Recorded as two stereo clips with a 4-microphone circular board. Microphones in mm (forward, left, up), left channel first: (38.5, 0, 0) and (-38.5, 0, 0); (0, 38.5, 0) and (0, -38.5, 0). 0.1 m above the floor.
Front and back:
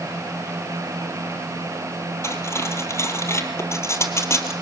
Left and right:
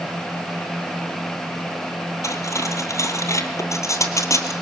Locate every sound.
2.2 s cutlery clinking: 50° left, 1.9 m